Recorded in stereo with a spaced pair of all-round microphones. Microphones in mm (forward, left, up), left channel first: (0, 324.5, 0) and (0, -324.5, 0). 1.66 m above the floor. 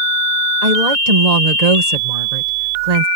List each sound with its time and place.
0.6 s a woman speaking: 75° right (ahead or behind)